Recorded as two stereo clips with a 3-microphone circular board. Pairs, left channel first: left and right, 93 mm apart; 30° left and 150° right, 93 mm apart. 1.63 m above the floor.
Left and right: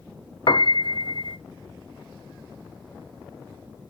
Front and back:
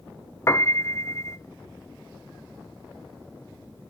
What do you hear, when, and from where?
0.5 s a piano: 80° left, 0.6 m